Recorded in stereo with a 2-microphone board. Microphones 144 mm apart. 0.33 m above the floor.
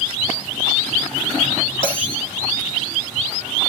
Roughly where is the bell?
Left.